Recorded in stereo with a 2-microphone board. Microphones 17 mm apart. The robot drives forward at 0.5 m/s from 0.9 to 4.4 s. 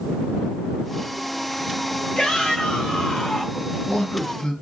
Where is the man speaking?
75° left (ahead or behind), 5.5 m.